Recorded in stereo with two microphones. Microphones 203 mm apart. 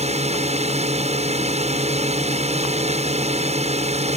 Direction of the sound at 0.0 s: 30° right (ahead or behind).